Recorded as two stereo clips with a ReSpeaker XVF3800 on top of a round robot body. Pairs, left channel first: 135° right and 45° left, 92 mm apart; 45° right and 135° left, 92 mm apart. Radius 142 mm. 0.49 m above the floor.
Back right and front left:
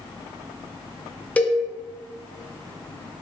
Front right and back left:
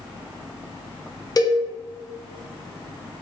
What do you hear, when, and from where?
1.4 s a cowbell: 65° right, 0.7 m